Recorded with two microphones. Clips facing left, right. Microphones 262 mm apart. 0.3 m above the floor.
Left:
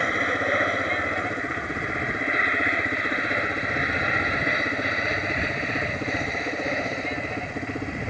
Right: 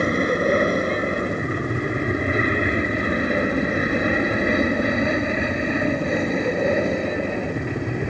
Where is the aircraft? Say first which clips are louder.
Right 8 dB; 50° right (ahead or behind); by 8.1 s 65° right (ahead or behind).